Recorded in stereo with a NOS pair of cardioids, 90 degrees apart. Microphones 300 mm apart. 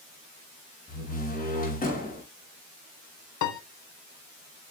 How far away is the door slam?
About 5 m.